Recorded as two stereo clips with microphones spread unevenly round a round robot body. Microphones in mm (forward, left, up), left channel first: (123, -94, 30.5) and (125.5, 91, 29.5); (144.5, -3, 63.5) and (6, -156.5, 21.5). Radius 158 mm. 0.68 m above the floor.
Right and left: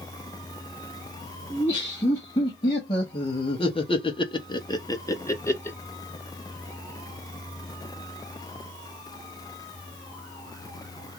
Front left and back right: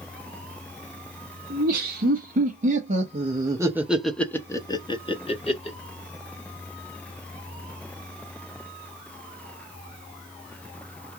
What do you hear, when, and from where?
1.5 s laughter: 165° right, 1.3 m; by 5.8 s 15° right, 1.2 m